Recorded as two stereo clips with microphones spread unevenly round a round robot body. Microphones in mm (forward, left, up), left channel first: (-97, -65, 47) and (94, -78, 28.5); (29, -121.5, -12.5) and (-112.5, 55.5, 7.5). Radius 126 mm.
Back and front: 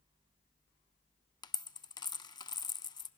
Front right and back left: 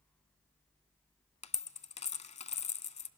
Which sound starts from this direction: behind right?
A dropped coin, at 1.4 s.